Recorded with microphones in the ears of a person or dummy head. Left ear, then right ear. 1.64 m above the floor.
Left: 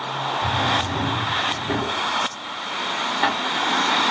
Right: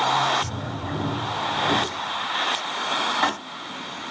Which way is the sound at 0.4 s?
55° right (ahead or behind).